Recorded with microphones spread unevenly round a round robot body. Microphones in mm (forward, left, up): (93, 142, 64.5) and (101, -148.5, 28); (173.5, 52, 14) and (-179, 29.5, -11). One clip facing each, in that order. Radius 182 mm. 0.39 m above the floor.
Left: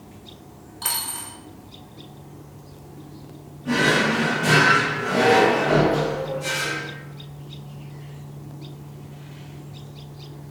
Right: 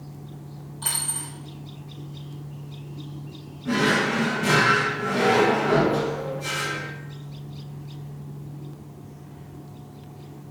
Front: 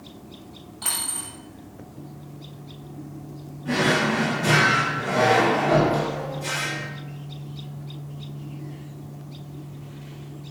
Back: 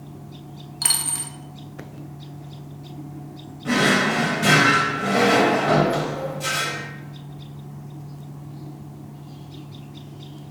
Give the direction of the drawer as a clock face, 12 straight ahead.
6 o'clock.